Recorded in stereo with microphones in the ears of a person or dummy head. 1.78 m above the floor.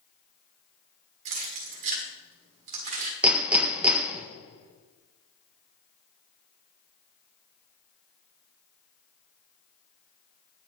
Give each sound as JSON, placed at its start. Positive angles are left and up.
{"t": 1.2, "sound": "keys jangling", "side_deg": -45, "distance_m": 1.4}
{"t": 3.2, "sound": "hammering", "side_deg": -10, "distance_m": 0.9}